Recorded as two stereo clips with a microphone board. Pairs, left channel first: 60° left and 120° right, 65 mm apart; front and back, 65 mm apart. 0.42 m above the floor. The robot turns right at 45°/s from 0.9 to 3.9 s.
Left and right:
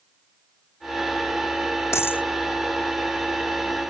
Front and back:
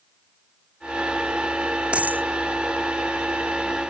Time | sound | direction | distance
1.9 | a dropped coin | 105° left | ?